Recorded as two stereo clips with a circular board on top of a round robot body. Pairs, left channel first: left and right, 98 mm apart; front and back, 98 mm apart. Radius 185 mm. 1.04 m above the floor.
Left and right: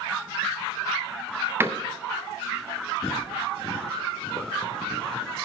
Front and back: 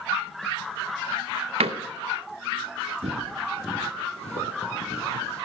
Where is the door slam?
160° right, 0.7 m.